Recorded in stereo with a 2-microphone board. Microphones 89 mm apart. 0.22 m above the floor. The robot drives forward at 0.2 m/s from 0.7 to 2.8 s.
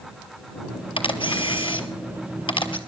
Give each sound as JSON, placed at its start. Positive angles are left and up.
{"t": 1.0, "sound": "a camera shutter", "side_deg": 80, "distance_m": 1.3}